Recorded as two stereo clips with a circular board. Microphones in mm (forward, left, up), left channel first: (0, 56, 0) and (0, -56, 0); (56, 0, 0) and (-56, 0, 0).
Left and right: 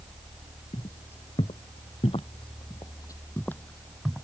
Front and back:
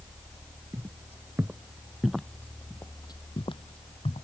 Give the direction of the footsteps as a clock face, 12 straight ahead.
8 o'clock.